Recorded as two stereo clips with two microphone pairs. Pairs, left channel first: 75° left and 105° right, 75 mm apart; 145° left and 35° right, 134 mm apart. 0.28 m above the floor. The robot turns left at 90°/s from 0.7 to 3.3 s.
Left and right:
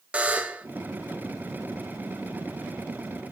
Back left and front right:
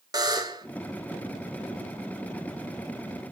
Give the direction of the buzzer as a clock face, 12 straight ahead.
2 o'clock.